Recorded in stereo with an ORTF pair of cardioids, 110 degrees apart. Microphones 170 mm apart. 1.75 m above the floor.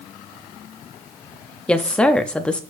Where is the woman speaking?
5° left, 0.7 m.